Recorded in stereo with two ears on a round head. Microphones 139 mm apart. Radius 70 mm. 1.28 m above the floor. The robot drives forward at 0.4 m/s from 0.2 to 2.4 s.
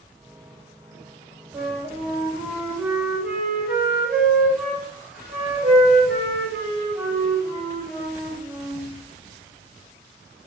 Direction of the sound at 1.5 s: 10° right (ahead or behind).